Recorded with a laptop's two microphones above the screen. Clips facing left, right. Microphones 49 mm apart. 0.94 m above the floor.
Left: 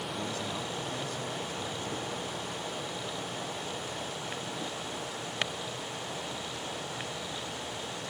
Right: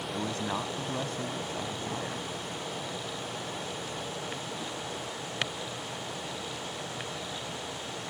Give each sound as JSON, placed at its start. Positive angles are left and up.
{"t": 0.1, "sound": "a man speaking", "side_deg": -40}